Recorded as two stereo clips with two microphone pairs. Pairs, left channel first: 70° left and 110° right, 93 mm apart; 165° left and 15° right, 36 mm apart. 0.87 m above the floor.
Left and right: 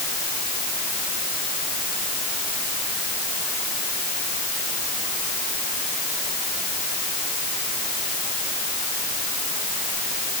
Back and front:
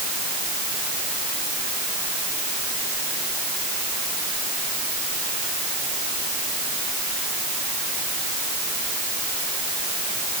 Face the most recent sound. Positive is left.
No sound to turn to.